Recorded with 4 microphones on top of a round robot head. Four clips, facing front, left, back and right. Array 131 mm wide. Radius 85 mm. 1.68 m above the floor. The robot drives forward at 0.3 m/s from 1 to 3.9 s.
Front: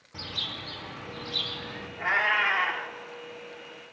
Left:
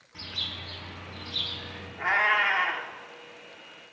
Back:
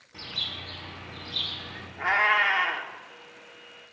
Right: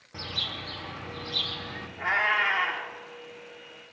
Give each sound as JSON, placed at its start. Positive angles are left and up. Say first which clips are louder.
{"t": 0.1, "sound": "a bird", "louder": "right 4 dB, front 2 dB", "azimuth_deg": -75, "distance_m": 2.0}
{"t": 2.0, "sound": "a cat meowing", "louder": "left 1 dB, back 3 dB", "azimuth_deg": 160, "distance_m": 1.3}